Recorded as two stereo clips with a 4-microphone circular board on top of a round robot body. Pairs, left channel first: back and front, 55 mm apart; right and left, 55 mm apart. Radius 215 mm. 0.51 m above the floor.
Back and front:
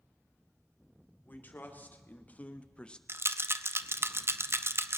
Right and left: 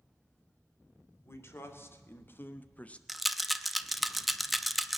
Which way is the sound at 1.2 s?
125° right.